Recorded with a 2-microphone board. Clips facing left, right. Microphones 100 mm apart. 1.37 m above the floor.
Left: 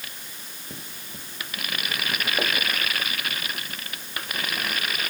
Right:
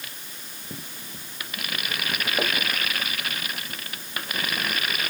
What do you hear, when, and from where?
Only background noise.